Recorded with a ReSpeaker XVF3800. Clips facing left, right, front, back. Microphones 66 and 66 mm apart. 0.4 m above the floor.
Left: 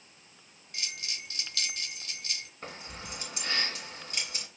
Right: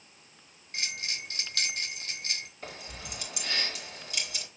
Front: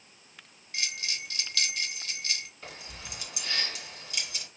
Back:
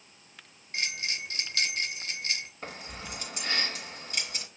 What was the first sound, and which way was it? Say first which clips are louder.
A bell: right 4 dB, back 2 dB; 130° right.